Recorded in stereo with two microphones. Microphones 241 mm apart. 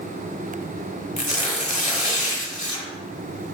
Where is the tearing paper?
30° left (ahead or behind), 1.4 m.